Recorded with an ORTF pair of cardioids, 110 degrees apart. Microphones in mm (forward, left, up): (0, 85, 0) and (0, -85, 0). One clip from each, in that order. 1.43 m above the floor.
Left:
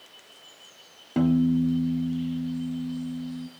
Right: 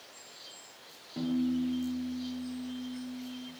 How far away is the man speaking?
No man speaking in this recording.